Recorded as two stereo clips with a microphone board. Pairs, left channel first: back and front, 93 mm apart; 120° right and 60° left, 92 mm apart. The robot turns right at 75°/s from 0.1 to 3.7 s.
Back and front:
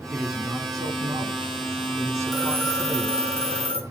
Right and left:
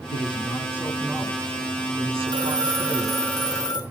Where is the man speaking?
100° right, 3.5 m; by 3.2 s 135° left, 3.5 m.